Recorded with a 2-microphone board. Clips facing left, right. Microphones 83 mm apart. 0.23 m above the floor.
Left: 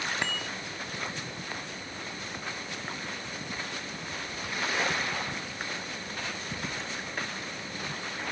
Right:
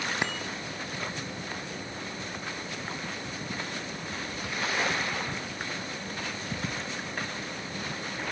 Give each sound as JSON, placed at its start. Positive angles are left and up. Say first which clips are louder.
{"t": 0.2, "sound": "a bicycle bell", "louder": "right 1 dB", "side_deg": -15}